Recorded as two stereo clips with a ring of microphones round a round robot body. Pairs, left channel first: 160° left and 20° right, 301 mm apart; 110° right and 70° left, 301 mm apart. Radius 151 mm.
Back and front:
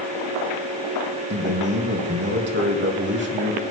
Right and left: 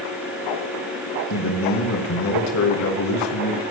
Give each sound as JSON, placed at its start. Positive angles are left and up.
{"t": 1.3, "sound": "a man speaking", "azimuth_deg": -75, "distance_m": 3.5}